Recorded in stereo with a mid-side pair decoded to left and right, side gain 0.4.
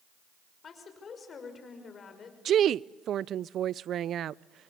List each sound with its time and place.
0.6 s a woman speaking: 50° left, 5.5 m
2.5 s a woman speaking: 65° right, 0.5 m